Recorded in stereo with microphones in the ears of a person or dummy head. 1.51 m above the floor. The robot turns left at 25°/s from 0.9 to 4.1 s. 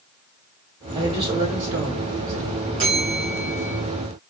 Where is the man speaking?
20° right, 2 m; by 2.6 s 65° right, 2 m.